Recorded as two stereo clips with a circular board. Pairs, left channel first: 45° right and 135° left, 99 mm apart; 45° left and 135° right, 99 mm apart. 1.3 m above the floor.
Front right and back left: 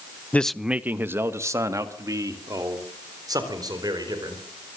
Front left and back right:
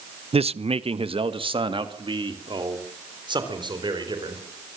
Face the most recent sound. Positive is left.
turn(degrees=-175)